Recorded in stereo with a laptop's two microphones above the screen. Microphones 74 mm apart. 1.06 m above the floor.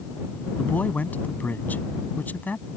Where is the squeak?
No squeak in this recording.